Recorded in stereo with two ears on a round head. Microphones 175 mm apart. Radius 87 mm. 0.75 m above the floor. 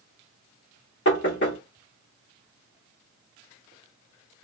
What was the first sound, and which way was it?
Knocking, 60° left (ahead or behind).